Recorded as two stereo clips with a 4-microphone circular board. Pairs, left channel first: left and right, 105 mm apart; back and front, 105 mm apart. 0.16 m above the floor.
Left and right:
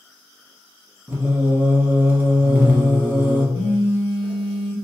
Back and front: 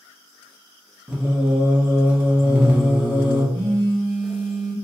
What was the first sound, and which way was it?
Singing, 60° right.